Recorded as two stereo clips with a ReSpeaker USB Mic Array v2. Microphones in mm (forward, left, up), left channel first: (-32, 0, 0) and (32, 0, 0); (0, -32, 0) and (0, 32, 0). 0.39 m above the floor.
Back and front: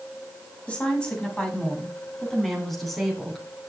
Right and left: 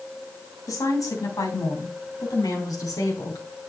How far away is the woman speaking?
About 2.5 m.